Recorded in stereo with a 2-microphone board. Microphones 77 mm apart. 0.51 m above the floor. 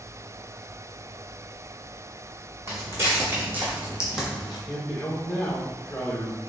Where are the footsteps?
35° right (ahead or behind), 1.7 m; by 4.6 s 5° left (ahead or behind), 1.0 m.